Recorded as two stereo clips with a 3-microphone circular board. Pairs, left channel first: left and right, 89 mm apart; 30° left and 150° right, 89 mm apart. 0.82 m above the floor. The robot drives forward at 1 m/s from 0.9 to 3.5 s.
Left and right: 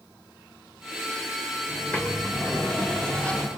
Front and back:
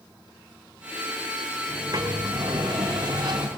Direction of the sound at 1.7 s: 160° left.